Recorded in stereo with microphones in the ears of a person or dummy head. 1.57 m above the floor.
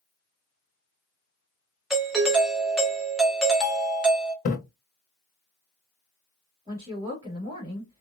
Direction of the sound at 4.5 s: 40° left (ahead or behind).